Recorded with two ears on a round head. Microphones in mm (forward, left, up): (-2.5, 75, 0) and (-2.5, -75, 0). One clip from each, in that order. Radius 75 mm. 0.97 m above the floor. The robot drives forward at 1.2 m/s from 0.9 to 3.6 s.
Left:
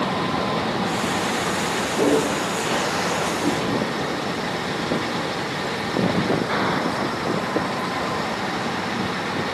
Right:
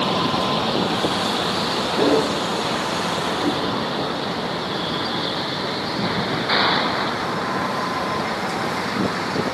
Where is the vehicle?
85° right; by 9.6 s 80° right.